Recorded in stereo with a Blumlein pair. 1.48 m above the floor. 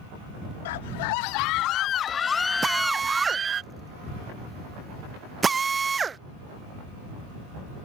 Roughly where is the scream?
Ahead left.